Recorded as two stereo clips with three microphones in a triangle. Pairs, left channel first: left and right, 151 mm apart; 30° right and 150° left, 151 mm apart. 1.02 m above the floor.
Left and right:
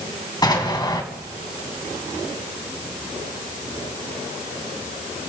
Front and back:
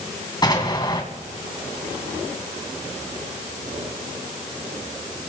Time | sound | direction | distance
0.4 | an explosion | 30° left | 1.9 m